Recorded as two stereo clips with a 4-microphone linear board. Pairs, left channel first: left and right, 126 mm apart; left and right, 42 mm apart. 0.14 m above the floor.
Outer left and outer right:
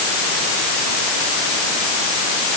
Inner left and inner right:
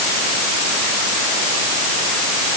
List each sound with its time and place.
Only background noise.